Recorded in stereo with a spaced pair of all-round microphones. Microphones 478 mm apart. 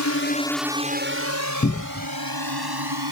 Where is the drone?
35° left (ahead or behind); by 3.1 s 55° right (ahead or behind).